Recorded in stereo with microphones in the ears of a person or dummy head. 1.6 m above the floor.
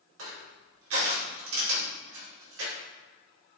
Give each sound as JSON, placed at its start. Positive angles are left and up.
{"t": 0.2, "sound": "crushing", "side_deg": -85, "distance_m": 4.5}